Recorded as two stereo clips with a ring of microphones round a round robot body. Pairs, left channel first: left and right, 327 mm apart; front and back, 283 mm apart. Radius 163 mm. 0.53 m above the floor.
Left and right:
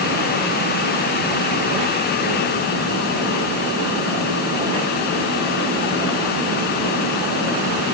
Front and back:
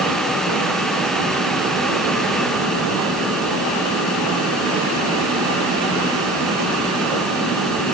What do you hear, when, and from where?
Only background noise.